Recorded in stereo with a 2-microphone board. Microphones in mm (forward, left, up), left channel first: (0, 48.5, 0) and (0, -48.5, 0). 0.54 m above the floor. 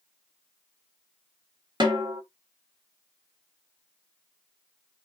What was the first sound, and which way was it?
A snare drum, 55° right (ahead or behind).